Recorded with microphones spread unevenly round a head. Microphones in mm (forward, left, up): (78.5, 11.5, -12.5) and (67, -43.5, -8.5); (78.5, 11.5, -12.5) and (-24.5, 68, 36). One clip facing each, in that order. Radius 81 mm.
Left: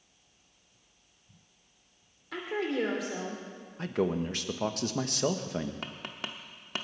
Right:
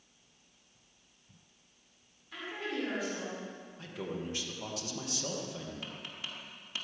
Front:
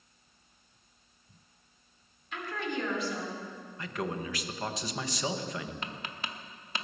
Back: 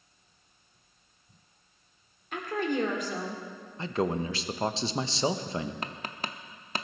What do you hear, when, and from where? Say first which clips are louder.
2.3 s a woman speaking: left 6 dB, back 6 dB; 105° left, 3 m
3.8 s a man speaking: left 10 dB, back 6 dB; 80° left, 1.0 m
5.8 s tapping: left 4 dB, back 3 dB; 125° left, 0.8 m